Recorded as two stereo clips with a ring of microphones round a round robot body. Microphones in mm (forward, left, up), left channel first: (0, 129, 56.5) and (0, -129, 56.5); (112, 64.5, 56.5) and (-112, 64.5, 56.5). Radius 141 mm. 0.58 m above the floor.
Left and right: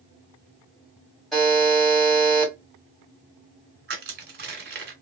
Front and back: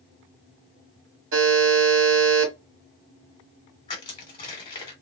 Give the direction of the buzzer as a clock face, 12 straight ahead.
6 o'clock.